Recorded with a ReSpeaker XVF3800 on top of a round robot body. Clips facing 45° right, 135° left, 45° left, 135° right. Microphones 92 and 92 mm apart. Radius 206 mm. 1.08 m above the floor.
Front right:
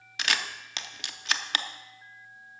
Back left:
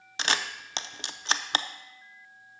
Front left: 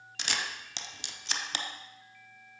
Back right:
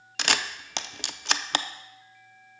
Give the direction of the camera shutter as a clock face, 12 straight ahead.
5 o'clock.